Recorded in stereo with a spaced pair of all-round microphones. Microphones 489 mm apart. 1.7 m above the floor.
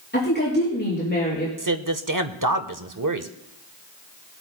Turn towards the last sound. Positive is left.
turn(degrees=-40)  # may be behind; listen again after turning